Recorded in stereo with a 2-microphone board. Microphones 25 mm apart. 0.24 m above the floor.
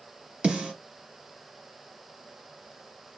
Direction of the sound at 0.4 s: 50° right (ahead or behind).